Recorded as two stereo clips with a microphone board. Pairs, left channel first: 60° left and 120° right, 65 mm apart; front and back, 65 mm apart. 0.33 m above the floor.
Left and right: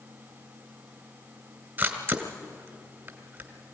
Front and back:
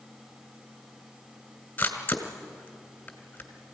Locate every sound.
1.8 s a camera shutter: 65° right, 2.5 m